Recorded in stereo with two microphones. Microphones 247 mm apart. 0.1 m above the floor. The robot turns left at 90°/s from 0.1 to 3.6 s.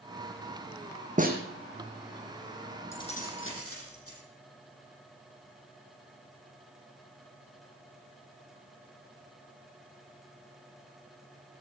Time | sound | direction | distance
1.2 | a snare drum | 30° right (ahead or behind) | 2 m
2.9 | keys jangling | 170° left | 3.5 m